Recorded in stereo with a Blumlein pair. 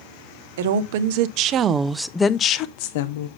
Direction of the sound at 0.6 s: 60° right.